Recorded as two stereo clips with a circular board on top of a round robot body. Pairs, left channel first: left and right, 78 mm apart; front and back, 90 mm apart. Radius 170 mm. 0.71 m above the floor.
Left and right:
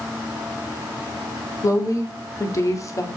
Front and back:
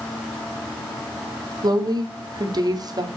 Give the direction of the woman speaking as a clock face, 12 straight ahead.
7 o'clock.